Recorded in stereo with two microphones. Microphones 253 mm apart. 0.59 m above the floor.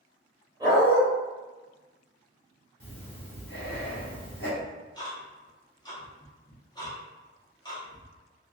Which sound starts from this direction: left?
Breathing, at 2.8 s.